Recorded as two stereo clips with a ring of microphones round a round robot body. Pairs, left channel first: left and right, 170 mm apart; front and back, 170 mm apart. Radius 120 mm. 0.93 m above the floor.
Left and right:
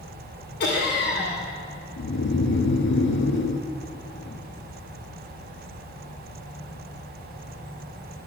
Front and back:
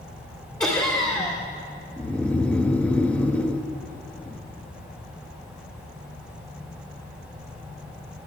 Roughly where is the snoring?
Left.